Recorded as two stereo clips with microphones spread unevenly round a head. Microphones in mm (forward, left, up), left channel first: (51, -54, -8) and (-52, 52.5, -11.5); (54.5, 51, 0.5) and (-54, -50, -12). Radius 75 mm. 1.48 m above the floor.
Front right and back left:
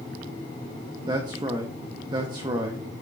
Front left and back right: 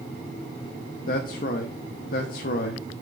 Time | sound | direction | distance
1.1 | a man speaking | 70° left | 0.8 m